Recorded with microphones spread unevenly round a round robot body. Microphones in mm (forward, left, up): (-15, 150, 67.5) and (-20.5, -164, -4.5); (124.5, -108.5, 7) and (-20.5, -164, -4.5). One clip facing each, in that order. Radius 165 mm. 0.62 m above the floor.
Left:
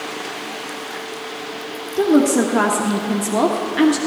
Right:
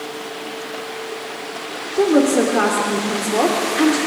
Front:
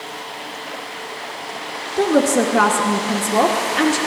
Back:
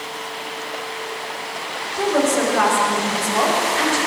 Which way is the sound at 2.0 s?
20° left.